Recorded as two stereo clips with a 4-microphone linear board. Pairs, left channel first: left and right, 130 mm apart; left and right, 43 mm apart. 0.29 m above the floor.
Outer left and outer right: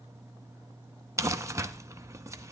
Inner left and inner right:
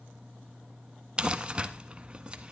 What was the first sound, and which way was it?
Crumpling, 25° right (ahead or behind).